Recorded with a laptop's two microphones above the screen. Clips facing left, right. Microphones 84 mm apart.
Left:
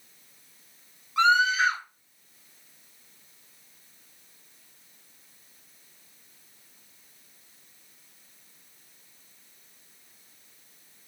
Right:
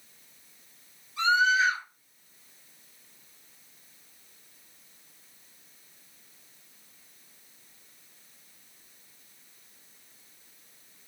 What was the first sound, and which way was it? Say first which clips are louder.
A scream: left 2 dB; 90° left.